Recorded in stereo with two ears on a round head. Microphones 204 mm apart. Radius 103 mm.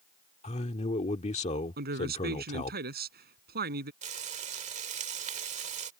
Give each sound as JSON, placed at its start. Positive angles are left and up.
{"t": 0.4, "sound": "a man speaking", "side_deg": 30}
{"t": 1.8, "sound": "a man speaking", "side_deg": -45}
{"t": 4.0, "sound": "frying", "side_deg": -30}